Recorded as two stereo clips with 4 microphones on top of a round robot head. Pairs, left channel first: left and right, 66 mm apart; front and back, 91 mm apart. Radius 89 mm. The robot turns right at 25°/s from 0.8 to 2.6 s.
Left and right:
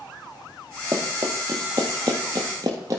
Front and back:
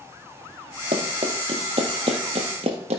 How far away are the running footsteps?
About 1.6 m.